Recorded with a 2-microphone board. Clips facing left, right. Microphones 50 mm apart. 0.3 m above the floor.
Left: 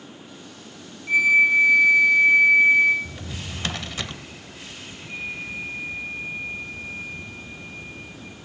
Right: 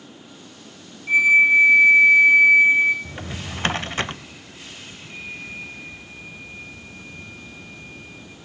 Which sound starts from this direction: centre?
A flute, at 1.1 s.